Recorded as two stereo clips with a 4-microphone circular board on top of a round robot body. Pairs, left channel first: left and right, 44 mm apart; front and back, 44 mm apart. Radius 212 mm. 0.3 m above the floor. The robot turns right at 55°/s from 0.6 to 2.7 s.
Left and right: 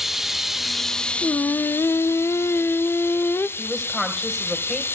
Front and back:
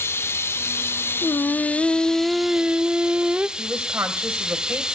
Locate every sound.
0.0 s running water: 5° right, 1.4 m; by 5.0 s 110° left, 1.4 m
1.2 s singing: 40° left, 0.5 m; by 3.5 s 120° left, 0.5 m
3.6 s a woman speaking: 165° left, 3.5 m